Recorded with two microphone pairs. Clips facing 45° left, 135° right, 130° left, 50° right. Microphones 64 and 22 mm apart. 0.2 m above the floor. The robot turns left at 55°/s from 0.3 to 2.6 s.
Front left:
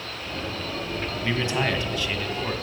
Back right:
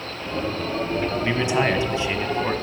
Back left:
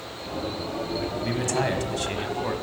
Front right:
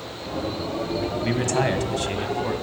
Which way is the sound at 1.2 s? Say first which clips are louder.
Back right 2 dB, front right 3 dB; 90° right.